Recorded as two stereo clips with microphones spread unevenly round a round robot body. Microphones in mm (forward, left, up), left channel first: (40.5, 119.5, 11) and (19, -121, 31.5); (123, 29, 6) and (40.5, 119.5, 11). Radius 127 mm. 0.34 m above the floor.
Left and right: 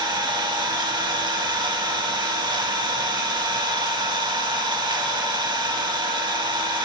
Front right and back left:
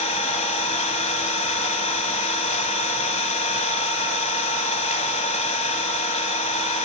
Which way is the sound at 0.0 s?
20° right.